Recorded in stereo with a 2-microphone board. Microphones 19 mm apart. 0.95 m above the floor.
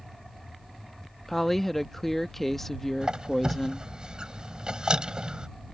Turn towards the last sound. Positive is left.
turn(degrees=-50)  # may be behind; listen again after turning